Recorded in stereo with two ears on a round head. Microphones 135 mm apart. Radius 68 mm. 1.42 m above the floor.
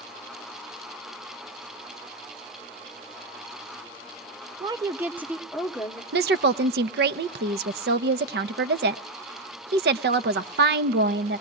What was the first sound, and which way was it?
A woman speaking, 30° right (ahead or behind).